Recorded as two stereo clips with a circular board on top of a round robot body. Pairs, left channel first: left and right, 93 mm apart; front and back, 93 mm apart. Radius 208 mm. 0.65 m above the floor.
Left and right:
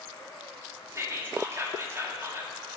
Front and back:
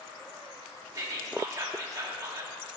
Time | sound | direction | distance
0.9 | whispering | 140° right | 1.5 m